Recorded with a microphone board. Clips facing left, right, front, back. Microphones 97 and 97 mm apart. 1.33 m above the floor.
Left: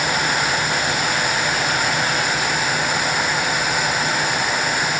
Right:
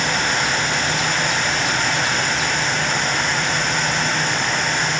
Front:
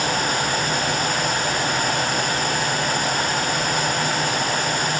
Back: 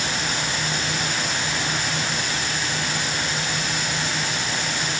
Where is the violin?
I don't hear a violin.